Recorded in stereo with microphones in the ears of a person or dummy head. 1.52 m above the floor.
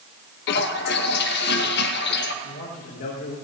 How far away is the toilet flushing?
About 0.9 m.